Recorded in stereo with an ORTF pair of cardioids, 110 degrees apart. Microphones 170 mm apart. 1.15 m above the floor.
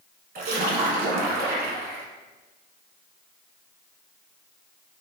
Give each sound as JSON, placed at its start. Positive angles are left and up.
{"t": 0.3, "sound": "a splash", "azimuth_deg": -60, "distance_m": 1.3}